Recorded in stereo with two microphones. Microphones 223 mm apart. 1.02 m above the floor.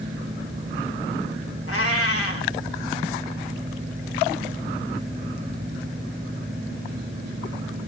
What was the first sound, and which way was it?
A cat meowing, 85° left.